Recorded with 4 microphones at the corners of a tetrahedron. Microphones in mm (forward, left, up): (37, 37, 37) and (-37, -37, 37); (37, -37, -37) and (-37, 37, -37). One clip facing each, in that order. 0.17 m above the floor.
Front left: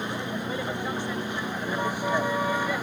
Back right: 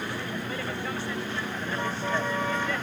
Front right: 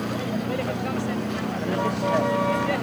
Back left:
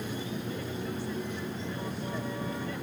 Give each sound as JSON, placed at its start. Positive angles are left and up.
{"t": 0.0, "sound": "a vehicle", "azimuth_deg": -25}